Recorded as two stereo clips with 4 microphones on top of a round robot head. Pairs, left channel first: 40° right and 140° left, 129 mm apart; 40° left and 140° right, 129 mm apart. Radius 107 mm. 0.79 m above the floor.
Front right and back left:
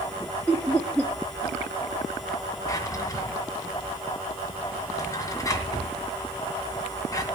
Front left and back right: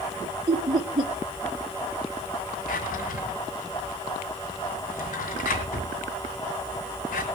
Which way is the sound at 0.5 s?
110° right.